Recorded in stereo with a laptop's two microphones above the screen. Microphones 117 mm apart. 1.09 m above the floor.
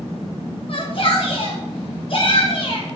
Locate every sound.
0.7 s a shout: 50° left (ahead or behind), 1.5 m